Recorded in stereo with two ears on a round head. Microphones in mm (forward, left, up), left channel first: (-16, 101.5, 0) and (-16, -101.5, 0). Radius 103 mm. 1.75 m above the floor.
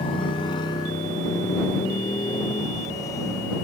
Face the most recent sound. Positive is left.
turn(degrees=15)  # may be behind; listen again after turning